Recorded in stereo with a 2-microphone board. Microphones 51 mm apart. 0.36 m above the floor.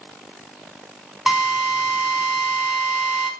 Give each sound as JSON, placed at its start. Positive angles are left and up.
{"t": 1.3, "sound": "a drill", "side_deg": -10, "distance_m": 5.0}